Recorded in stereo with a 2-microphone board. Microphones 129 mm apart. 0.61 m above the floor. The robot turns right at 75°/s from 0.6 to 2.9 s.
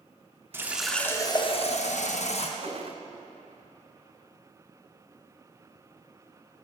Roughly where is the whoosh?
Left.